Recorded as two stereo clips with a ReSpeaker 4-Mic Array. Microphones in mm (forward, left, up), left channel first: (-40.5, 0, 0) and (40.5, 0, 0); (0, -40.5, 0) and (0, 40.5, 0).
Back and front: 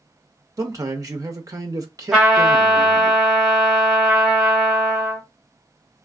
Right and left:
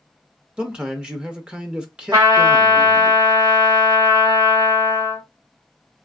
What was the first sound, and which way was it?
A man speaking, 20° left.